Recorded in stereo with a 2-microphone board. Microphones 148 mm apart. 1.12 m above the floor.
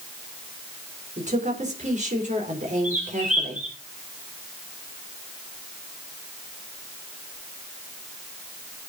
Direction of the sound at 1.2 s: 55° right (ahead or behind).